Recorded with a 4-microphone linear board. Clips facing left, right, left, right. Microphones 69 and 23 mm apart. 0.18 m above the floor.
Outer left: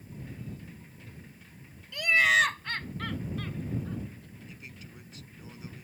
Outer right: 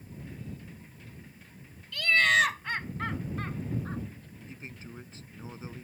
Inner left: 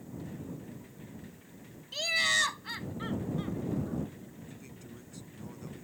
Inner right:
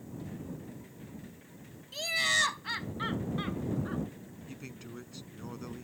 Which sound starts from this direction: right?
A man speaking, at 4.5 s.